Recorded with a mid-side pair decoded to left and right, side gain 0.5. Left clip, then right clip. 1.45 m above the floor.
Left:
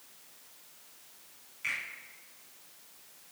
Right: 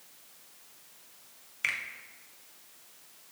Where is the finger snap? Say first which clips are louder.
Right 3 dB; 65° right, 1.3 m.